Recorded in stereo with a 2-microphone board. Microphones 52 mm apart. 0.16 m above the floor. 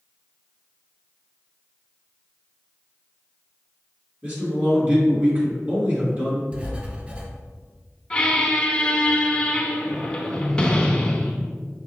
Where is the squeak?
20° left (ahead or behind), 0.6 m.